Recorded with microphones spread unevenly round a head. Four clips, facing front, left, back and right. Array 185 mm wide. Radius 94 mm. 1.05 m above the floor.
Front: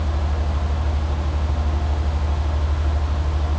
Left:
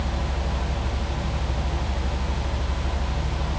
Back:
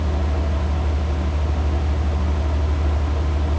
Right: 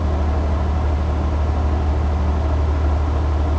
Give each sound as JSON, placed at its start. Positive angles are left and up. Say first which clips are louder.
{"t": 0.0, "sound": "a fan", "louder": "right 6 dB, back 2 dB", "azimuth_deg": -125, "distance_m": 1.3}